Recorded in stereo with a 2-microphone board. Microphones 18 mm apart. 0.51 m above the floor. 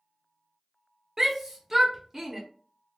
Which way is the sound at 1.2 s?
15° right (ahead or behind).